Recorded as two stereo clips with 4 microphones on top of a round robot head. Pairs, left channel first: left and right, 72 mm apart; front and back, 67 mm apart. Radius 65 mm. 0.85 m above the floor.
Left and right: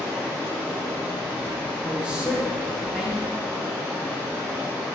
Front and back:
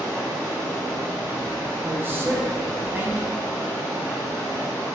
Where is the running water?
30° right, 0.8 m.